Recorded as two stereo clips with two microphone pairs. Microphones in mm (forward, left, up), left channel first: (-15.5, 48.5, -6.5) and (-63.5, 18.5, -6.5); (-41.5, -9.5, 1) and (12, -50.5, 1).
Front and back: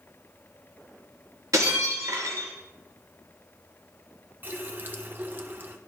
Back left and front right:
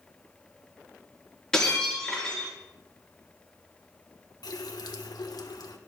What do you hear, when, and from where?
1.5 s breaking glass: 140° right, 4 m
4.4 s a running tap: 160° left, 1.1 m